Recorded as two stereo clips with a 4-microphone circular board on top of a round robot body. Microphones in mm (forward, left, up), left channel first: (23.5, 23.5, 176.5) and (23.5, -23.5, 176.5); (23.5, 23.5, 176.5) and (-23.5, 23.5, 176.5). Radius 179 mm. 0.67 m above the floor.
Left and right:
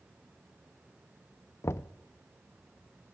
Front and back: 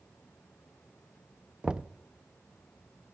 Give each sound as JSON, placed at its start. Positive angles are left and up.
{"t": 1.6, "sound": "knocking", "azimuth_deg": 110, "distance_m": 0.5}